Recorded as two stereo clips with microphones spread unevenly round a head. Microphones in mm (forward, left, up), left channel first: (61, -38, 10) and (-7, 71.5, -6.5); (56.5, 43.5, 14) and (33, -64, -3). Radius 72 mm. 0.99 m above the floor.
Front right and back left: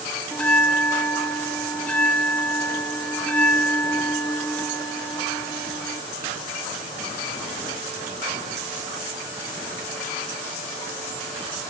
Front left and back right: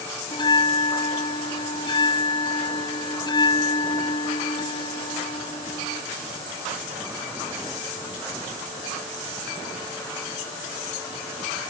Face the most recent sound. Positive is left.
turn(degrees=25)